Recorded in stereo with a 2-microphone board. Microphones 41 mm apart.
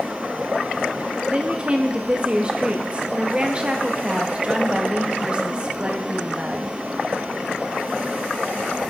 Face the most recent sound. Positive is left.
turn(degrees=-30)  # may be behind; listen again after turning